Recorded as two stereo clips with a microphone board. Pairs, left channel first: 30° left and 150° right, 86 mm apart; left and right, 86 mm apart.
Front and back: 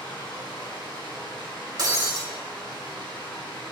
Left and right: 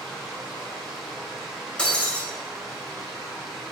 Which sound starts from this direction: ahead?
Running water, at 0.0 s.